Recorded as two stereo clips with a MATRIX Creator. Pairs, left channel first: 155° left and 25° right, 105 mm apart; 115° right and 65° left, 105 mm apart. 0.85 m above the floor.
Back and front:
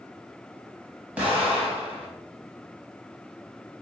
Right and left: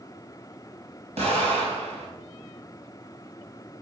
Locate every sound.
1.2 s an explosion: 55° left, 3.5 m